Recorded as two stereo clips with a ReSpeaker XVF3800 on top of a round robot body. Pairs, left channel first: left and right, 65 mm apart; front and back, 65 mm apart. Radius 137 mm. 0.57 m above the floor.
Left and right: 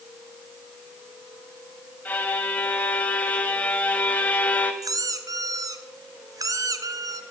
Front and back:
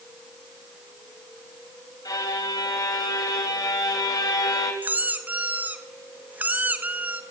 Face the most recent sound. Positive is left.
turn(degrees=-115)